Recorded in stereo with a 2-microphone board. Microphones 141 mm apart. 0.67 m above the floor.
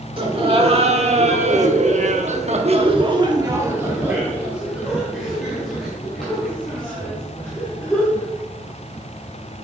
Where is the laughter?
40° right (ahead or behind), 1.7 m; by 8.3 s 10° left (ahead or behind), 3.5 m.